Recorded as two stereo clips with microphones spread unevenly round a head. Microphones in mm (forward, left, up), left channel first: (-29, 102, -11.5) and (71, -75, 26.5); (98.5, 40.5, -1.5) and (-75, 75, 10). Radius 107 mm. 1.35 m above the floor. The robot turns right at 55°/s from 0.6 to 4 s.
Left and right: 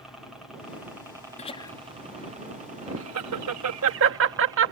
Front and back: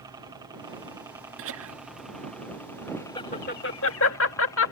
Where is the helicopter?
Straight behind; by 4.7 s 10° left.